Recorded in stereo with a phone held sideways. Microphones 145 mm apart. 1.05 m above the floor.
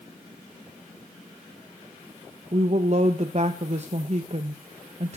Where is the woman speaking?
50° right (ahead or behind), 0.8 m.